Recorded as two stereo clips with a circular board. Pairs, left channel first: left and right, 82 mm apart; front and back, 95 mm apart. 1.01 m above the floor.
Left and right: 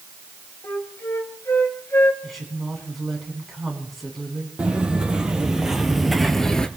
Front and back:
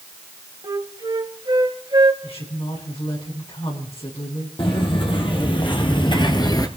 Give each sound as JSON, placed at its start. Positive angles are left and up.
{"t": 0.6, "sound": "a flute", "azimuth_deg": 145, "distance_m": 1.9}
{"t": 2.2, "sound": "a woman speaking", "azimuth_deg": 0, "distance_m": 7.0}
{"t": 4.6, "sound": "footsteps", "azimuth_deg": -15, "distance_m": 2.5}